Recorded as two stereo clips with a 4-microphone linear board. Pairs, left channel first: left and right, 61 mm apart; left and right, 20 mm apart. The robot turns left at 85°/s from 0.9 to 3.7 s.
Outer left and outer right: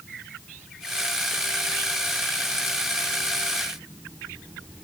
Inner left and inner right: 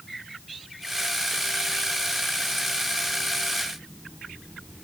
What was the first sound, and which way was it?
Only background noise.